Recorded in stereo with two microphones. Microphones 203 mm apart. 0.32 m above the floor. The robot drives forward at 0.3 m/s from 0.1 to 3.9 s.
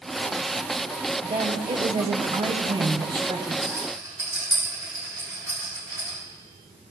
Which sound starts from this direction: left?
A rattle, at 3.6 s.